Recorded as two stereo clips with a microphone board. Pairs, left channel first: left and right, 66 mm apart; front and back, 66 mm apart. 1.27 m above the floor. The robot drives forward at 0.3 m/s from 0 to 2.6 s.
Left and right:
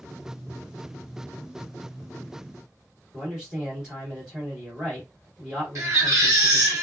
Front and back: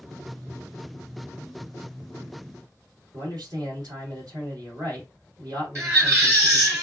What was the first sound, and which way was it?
A man speaking, 165° right.